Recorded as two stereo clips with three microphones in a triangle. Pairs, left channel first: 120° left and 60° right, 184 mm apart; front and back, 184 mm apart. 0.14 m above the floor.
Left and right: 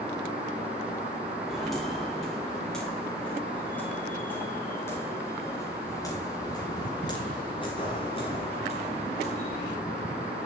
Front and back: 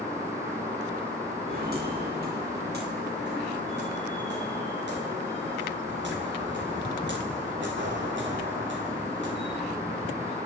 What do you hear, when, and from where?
1.5 s footsteps: 150° right, 7 m; by 9.6 s 175° left, 5 m